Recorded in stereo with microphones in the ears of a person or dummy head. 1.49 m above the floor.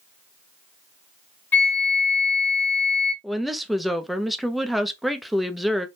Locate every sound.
1.5 s a flute: 10° left (ahead or behind), 1.0 m
3.2 s a woman speaking: centre (ahead or behind), 0.5 m